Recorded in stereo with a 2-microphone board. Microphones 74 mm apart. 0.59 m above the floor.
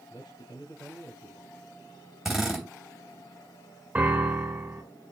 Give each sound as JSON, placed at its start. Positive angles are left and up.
{"t": 0.1, "sound": "a man speaking", "side_deg": 70, "distance_m": 6.0}
{"t": 2.2, "sound": "a drill", "side_deg": -5, "distance_m": 2.5}
{"t": 4.0, "sound": "a piano", "side_deg": -20, "distance_m": 1.8}